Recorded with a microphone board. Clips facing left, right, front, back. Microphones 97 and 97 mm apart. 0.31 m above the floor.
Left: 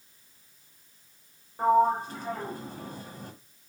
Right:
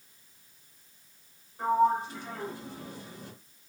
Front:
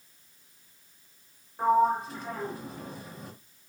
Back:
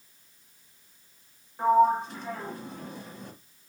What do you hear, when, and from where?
1.6 s a sliding door: 85° left, 0.8 m